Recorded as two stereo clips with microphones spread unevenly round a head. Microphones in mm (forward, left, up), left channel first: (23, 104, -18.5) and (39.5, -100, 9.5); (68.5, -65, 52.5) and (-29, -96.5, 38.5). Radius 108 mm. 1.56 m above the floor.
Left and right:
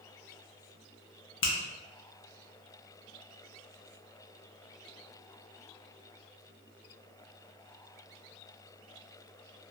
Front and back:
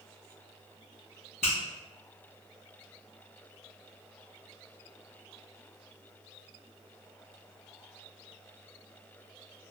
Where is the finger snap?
65° left, 0.7 m.